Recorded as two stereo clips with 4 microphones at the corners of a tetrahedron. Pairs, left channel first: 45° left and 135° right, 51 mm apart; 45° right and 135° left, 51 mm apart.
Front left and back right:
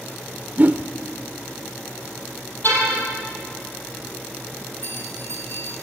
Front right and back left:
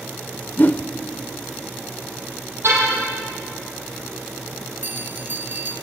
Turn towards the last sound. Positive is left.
turn(degrees=85)